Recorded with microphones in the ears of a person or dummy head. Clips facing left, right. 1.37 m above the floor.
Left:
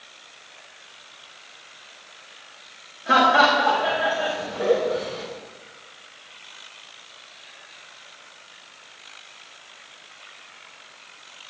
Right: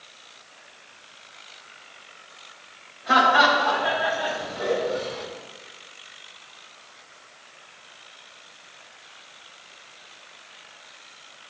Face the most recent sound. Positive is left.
turn(degrees=35)  # may be behind; listen again after turning